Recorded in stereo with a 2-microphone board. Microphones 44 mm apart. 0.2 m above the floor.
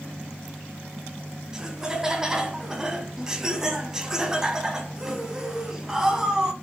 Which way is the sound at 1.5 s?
15° right (ahead or behind).